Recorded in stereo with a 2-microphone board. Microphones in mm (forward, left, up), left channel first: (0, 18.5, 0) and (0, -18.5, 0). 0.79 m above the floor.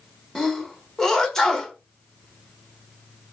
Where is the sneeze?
10° left (ahead or behind), 1.0 m.